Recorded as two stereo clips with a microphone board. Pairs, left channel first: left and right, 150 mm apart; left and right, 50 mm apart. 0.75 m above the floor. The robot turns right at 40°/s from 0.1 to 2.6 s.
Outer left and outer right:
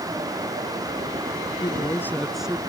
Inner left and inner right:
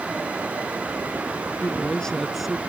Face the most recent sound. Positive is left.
turn(degrees=-170)